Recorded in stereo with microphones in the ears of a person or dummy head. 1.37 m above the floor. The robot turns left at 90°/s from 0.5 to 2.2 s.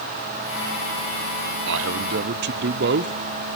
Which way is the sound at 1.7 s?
65° right.